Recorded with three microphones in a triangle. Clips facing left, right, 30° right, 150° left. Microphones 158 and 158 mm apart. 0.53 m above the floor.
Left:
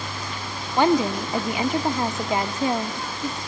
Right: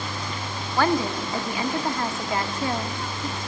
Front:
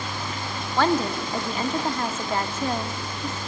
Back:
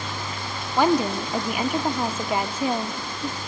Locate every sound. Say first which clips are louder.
0.8 s a woman speaking: left 3 dB, back 2 dB; 100° left, 0.6 m